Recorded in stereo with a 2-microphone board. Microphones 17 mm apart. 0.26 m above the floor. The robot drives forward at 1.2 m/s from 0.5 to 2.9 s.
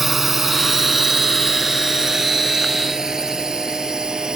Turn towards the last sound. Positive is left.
turn(degrees=-40)  # may be behind; listen again after turning